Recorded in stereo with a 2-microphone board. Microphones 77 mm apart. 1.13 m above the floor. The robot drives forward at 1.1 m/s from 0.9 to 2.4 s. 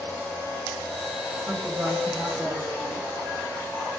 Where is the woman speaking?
20° right (ahead or behind), 5.5 m; by 3.1 s 15° right (ahead or behind), 6.5 m.